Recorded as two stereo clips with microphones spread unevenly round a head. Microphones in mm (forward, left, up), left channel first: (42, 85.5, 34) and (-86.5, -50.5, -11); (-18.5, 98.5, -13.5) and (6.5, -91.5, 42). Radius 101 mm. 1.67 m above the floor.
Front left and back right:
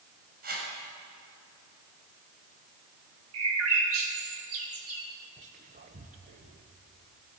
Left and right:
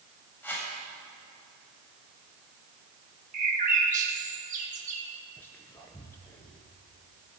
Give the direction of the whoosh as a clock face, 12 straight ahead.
6 o'clock.